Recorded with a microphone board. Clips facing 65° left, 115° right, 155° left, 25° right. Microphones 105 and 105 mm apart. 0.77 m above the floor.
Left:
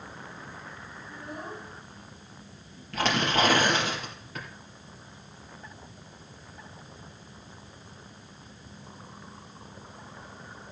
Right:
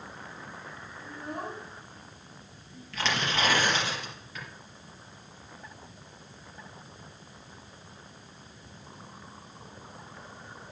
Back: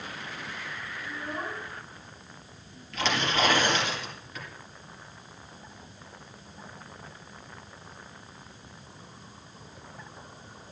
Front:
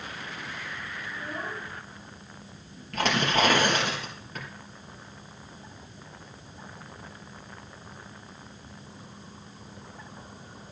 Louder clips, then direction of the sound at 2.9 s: Left 5 dB, front 3 dB; 20° left.